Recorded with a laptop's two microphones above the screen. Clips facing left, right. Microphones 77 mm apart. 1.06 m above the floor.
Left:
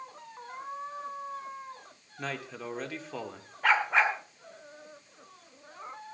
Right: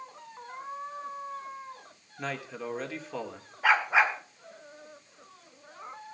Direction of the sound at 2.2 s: Centre (ahead or behind).